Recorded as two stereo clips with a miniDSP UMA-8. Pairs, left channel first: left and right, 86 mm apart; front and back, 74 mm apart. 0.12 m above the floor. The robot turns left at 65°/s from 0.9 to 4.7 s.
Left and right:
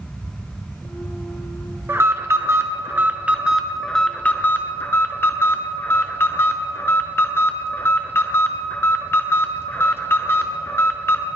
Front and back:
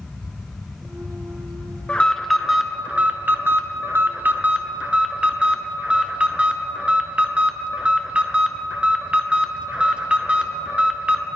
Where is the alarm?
60° right, 1.1 m; by 11.3 s 120° left, 1.1 m.